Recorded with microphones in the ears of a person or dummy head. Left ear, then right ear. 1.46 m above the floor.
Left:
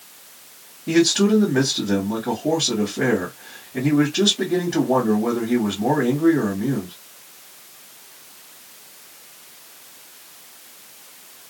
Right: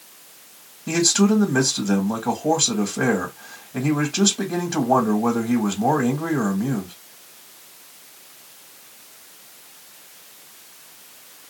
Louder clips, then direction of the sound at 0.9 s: Left 2 dB; 80° right.